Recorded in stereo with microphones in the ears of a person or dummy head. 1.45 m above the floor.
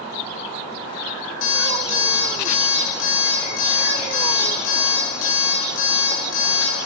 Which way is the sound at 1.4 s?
80° left.